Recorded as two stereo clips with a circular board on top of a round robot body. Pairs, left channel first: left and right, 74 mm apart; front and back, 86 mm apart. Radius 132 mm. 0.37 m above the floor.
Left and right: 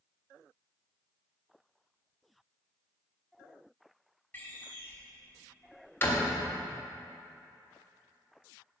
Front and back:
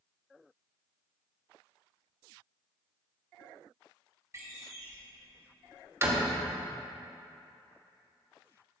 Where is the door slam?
140° left, 1.2 m.